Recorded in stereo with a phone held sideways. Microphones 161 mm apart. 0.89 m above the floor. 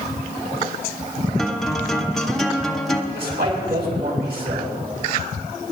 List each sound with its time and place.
1.4 s a guitar: centre (ahead or behind), 0.9 m
3.1 s a man speaking: 85° right, 5.5 m